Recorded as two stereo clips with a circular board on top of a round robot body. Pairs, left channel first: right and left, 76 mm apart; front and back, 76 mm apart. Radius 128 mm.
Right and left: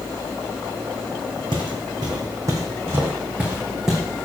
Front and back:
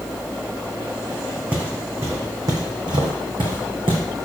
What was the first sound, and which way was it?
Footsteps, 110° left.